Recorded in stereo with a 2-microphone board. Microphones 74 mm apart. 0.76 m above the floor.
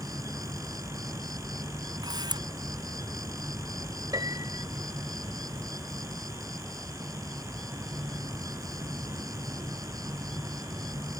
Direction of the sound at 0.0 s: 55° right (ahead or behind).